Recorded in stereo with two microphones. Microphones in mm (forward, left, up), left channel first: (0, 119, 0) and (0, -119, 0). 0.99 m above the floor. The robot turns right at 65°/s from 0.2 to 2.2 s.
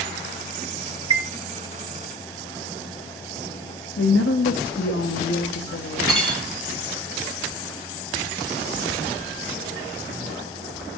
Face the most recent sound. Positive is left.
turn(degrees=0)  # may be behind; listen again after turning